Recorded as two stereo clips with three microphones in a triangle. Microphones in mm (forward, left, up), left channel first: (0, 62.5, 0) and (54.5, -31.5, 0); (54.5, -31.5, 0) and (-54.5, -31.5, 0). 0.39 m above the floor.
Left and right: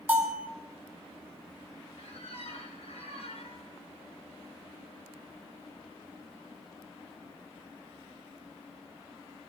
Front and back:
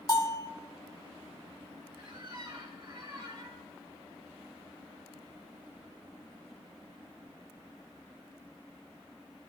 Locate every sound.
0.1 s a bell: 5° left, 1.6 m
2.0 s a squeak: 125° left, 3.5 m